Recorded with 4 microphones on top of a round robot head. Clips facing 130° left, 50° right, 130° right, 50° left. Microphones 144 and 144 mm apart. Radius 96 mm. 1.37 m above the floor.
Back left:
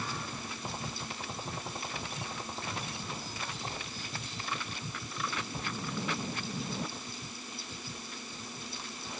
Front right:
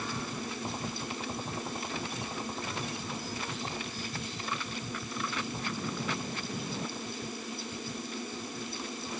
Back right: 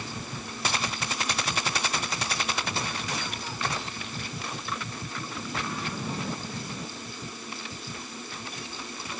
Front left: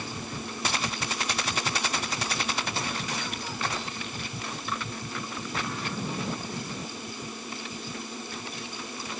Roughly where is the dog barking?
No dog barking in this recording.